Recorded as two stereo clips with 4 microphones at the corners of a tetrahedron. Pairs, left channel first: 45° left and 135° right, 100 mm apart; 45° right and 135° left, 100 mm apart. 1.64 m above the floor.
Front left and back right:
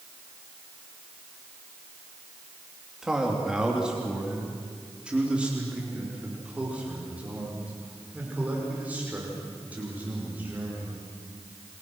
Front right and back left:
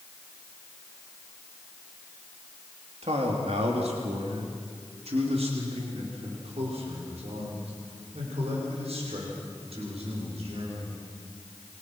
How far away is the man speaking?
About 3 m.